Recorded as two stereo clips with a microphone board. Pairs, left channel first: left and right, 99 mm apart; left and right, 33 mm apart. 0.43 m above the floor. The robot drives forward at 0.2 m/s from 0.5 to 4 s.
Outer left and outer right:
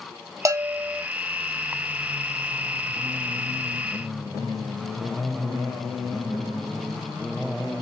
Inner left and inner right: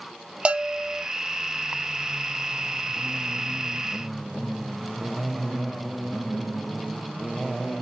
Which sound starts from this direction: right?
A bell, at 0.5 s.